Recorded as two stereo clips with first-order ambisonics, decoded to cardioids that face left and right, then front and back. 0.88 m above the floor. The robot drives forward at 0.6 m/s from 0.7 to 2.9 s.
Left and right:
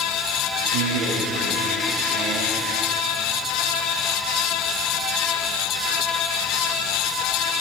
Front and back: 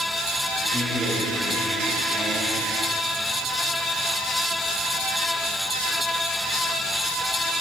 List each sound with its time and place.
0.7 s a man speaking: 90° right, 6 m; by 2.6 s 100° right, 6 m